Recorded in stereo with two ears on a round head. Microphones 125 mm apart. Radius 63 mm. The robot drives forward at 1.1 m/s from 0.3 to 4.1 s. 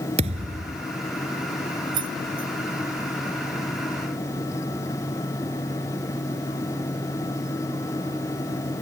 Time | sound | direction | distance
0.2 | a thud | 50° right (ahead or behind) | ?
1.9 | keys jangling | 35° right (ahead or behind) | ?